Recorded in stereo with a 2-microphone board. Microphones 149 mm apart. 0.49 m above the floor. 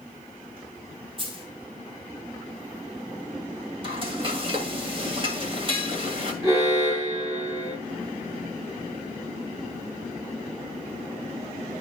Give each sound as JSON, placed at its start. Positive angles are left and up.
{"t": 1.2, "sound": "a dropped coin", "side_deg": -35, "distance_m": 2.0}
{"t": 3.8, "sound": "frying", "side_deg": -35, "distance_m": 1.9}
{"t": 6.4, "sound": "an alarm", "side_deg": -20, "distance_m": 5.5}